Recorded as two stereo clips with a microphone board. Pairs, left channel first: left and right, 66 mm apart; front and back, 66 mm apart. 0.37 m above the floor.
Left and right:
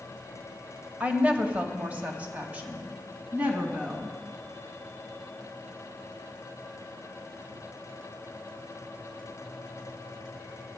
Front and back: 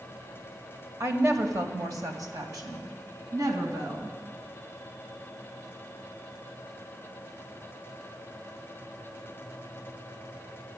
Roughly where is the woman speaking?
Behind right.